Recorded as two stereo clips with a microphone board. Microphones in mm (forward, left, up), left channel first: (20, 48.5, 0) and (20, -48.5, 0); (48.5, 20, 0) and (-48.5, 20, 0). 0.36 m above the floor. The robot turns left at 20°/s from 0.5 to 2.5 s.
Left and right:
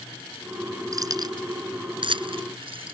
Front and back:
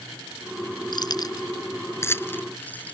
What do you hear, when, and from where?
0.9 s keys jangling: 40° right; by 2.9 s 70° right